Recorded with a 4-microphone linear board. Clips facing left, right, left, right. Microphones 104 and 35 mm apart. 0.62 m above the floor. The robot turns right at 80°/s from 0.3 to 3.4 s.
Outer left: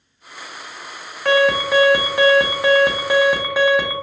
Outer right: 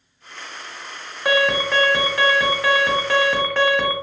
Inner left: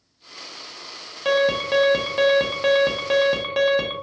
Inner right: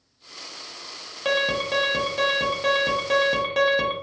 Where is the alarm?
5° right (ahead or behind), 0.8 m; by 3.9 s 10° left (ahead or behind), 0.8 m.